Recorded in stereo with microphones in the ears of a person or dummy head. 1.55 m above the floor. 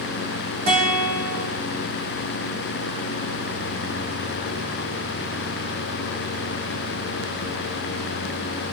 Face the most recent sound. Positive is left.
turn(degrees=-45)  # may be behind; listen again after turning